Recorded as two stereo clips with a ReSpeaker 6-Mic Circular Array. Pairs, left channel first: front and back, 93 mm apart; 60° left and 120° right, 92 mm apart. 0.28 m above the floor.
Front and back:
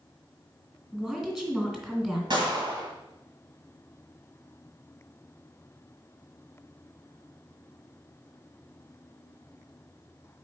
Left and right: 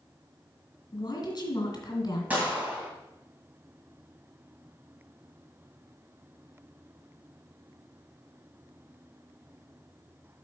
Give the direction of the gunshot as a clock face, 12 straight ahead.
6 o'clock.